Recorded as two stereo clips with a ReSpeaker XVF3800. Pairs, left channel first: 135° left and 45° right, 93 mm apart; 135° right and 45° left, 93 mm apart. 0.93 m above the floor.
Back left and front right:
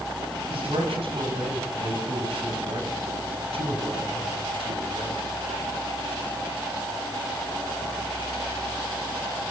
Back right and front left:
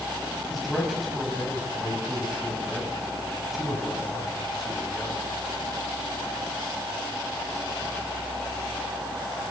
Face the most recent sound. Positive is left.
turn(degrees=-45)